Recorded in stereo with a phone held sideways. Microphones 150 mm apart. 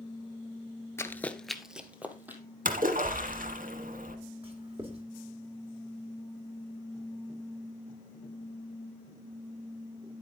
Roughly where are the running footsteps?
Centre.